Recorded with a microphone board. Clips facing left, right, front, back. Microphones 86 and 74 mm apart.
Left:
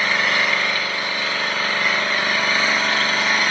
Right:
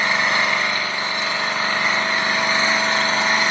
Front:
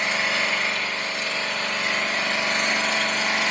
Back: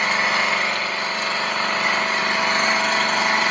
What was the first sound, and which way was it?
An engine running, 155° right.